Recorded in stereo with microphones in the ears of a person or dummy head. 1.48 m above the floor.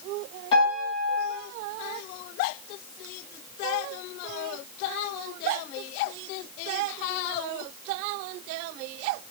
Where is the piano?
30° left (ahead or behind), 9 m.